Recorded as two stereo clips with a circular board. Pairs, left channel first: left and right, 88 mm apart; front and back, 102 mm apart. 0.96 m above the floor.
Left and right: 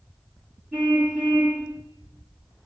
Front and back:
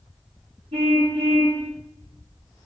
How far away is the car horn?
About 8 m.